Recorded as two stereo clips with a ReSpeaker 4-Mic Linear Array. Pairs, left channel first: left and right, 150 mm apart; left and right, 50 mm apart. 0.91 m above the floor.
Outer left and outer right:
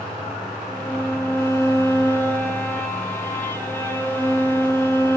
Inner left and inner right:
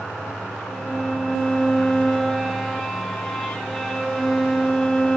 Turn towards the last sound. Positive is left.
turn(degrees=10)  # may be behind; listen again after turning